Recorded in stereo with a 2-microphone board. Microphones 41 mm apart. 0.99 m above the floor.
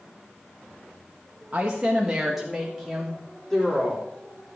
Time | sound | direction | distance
1.5 | a woman speaking | 35° right (ahead or behind) | 1.3 m